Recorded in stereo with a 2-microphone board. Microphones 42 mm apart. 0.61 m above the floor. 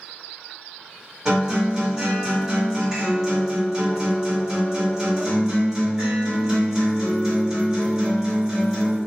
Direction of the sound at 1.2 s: 10° right (ahead or behind).